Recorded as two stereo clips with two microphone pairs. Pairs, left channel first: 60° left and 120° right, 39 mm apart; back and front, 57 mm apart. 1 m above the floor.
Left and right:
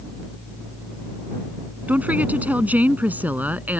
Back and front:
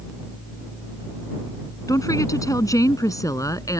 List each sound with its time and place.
1.9 s a woman speaking: 170° right; by 3.8 s 165° right